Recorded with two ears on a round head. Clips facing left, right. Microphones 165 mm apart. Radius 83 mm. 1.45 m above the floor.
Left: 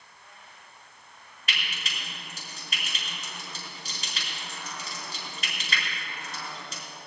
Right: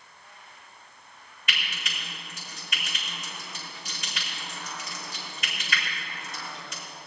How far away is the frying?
About 4.5 m.